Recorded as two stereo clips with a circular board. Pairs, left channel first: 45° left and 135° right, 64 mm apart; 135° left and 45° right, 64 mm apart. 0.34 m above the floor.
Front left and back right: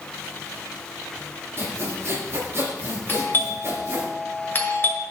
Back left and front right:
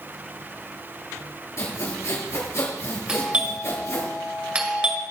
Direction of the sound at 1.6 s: 175° left.